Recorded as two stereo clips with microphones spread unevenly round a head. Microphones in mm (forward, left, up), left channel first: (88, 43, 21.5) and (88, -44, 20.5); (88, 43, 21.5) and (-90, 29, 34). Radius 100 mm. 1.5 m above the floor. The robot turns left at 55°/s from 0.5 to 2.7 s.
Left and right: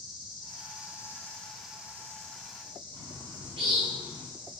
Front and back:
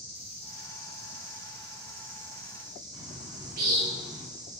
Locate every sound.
0.0 s an insect: 115° right, 3 m; by 4.6 s 120° left, 3 m
2.9 s a bird: 150° left, 4.5 m